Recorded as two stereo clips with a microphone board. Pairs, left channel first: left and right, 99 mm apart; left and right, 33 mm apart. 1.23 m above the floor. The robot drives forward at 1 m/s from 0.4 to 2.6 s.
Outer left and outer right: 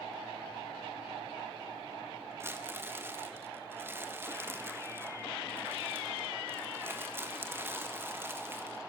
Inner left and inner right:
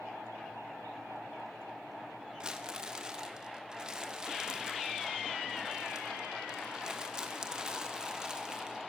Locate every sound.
2.4 s crumpling: 25° right (ahead or behind), 1.5 m